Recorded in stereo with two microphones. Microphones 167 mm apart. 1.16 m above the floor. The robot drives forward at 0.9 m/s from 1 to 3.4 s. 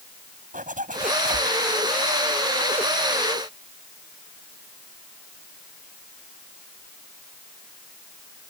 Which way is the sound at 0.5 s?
55° right (ahead or behind).